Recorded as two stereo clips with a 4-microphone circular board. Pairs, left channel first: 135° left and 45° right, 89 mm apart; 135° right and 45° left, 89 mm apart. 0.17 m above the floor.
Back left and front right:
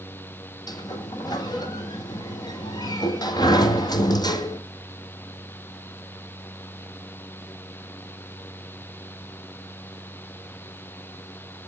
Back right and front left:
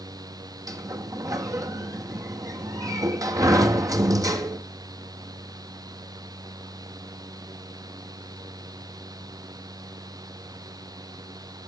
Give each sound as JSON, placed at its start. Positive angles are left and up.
{"t": 0.7, "sound": "a sliding door", "azimuth_deg": 95, "distance_m": 1.5}